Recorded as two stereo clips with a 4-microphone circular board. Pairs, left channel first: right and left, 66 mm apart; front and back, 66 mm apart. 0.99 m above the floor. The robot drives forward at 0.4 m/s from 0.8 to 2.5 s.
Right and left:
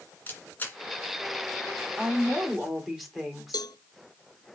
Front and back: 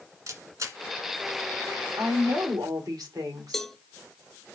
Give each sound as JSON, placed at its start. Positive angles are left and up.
{"t": 0.3, "sound": "a camera shutter", "azimuth_deg": -150, "distance_m": 2.0}
{"t": 2.0, "sound": "a woman speaking", "azimuth_deg": 180, "distance_m": 2.5}
{"t": 3.5, "sound": "a cowbell", "azimuth_deg": -85, "distance_m": 0.5}